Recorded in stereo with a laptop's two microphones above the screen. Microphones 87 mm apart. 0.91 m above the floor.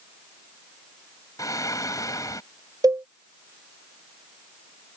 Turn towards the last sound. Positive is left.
turn(degrees=-45)  # may be behind; listen again after turning